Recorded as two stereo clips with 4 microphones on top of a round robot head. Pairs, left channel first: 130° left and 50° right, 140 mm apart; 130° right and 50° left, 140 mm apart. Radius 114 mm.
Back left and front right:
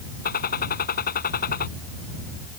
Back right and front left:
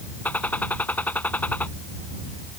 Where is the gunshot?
150° left.